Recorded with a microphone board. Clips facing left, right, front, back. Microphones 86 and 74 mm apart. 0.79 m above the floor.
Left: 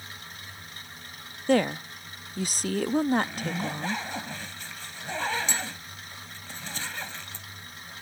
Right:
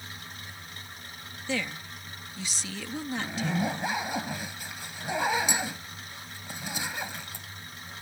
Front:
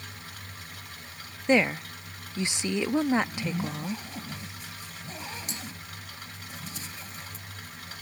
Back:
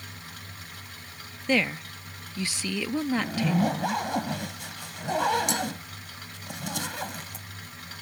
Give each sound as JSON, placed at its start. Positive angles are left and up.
{"t": 1.5, "sound": "a woman speaking", "azimuth_deg": 65}
{"t": 3.1, "sound": "a zipper", "azimuth_deg": -165}